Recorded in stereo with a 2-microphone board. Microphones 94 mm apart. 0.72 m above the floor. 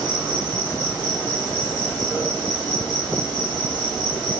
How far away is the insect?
About 2.0 m.